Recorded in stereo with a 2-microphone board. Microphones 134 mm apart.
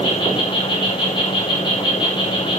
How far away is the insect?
About 6.5 m.